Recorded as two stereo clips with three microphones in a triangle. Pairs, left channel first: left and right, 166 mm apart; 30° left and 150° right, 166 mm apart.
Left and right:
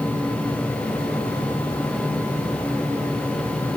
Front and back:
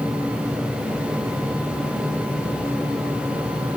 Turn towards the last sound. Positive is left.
No sound to turn to.